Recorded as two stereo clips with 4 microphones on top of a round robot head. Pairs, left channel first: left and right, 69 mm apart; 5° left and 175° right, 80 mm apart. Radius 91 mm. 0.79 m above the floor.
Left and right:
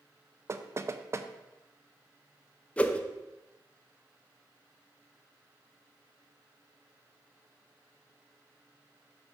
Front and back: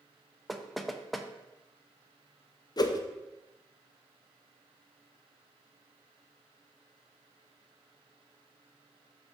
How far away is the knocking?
About 0.6 m.